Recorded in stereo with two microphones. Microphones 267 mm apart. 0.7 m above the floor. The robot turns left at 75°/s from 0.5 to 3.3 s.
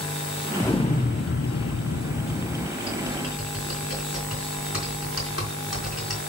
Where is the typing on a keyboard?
80° left, 4.5 m; by 6.2 s 65° left (ahead or behind), 4.5 m.